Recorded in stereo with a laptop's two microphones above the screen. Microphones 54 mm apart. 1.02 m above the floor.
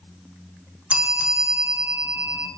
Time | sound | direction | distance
0.9 | a bell | 20° right (ahead or behind) | 0.6 m